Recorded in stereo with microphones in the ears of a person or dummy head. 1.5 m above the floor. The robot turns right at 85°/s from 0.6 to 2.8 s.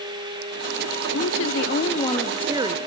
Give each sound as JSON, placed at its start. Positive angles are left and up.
{"t": 1.1, "sound": "a woman speaking", "azimuth_deg": 75, "distance_m": 0.6}